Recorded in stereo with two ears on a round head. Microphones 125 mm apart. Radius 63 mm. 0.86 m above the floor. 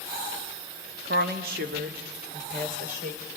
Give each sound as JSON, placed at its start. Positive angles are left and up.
{"t": 1.1, "sound": "a woman speaking", "side_deg": -70, "distance_m": 1.3}